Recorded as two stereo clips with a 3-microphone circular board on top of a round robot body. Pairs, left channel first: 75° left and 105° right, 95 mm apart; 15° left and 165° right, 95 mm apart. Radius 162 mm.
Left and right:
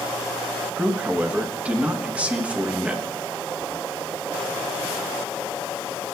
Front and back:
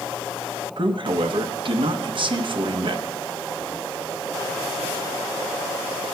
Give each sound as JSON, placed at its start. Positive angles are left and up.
{"t": 0.8, "sound": "a man speaking", "azimuth_deg": 180, "distance_m": 1.2}